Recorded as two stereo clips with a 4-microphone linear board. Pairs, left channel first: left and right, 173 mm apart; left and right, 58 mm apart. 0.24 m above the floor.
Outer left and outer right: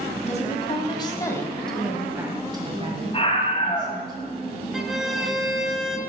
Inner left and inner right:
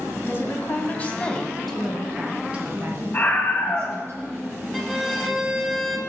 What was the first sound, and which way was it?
A woman speaking, 45° left (ahead or behind).